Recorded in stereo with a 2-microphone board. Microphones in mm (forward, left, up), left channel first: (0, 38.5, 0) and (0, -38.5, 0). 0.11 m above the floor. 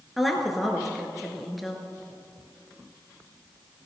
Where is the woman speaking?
Centre (ahead or behind), 1.6 m.